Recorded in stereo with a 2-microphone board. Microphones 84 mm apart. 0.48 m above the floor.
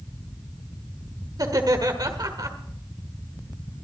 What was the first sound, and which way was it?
Laughter, 50° right (ahead or behind).